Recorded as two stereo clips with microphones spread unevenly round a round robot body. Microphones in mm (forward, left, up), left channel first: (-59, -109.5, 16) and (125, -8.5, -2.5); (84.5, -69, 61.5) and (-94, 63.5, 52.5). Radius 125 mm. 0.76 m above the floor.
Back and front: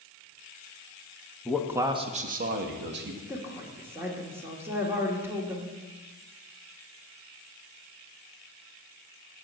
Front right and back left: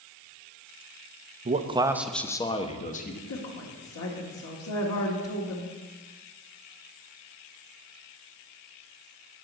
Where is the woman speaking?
50° right, 1.7 m.